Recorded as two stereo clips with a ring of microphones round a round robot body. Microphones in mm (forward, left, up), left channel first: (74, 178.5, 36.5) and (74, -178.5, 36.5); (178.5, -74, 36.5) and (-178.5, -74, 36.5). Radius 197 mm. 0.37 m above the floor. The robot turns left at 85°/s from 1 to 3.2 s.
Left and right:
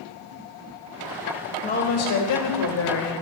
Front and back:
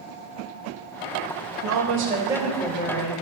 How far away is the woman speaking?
About 1.4 m.